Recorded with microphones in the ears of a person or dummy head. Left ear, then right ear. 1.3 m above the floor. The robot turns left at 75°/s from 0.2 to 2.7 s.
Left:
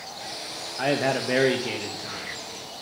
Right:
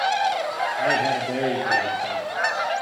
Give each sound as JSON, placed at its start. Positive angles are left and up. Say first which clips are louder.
{"t": 0.8, "sound": "a man speaking", "louder": "right 1 dB", "azimuth_deg": 110, "distance_m": 1.5}